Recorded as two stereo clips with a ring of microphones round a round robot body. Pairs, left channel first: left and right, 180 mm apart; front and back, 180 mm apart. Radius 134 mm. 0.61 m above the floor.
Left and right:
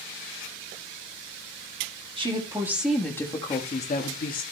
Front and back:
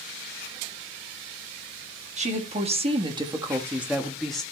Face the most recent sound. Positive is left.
turn(degrees=90)